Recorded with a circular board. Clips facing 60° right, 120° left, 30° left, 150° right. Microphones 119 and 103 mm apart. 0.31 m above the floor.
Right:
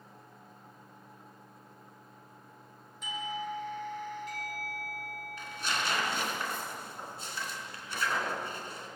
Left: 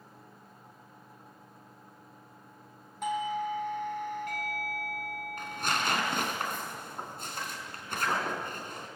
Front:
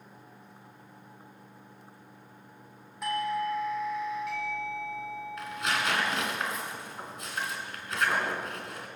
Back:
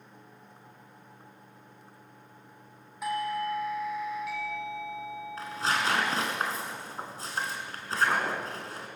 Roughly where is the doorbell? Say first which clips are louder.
Left 6 dB, front 1 dB; behind left.